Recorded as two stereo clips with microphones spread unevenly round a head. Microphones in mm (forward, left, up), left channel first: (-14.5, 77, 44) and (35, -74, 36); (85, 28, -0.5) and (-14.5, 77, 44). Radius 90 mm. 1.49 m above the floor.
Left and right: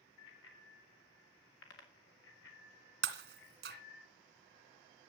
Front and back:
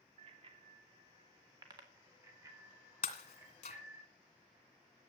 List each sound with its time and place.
0.2 s a bicycle bell: 125° left, 3 m; by 4.0 s 85° left, 5.5 m
3.0 s breaking glass: 85° right, 1.9 m